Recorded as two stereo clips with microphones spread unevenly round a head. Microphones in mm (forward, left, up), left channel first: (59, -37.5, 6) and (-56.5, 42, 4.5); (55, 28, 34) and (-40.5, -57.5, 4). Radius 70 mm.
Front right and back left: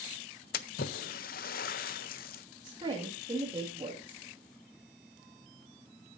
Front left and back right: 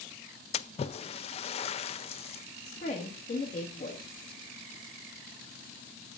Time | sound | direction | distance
0.5 | a splash | 10° right | 0.6 m
2.6 | a woman speaking | 80° left | 1.7 m